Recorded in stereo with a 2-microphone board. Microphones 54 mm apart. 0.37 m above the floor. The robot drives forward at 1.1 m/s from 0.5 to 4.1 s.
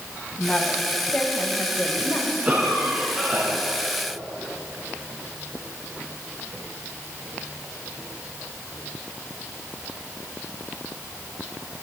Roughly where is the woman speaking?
Left.